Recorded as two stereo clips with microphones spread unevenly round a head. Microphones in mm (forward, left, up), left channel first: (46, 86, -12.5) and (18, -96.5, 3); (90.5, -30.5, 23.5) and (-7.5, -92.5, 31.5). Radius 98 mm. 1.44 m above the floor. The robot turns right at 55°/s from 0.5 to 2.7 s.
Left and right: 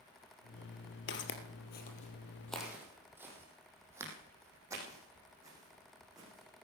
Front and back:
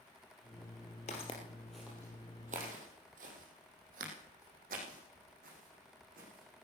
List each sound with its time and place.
1.1 s footsteps: 80° left, 2.5 m; by 6.7 s 170° right, 6.5 m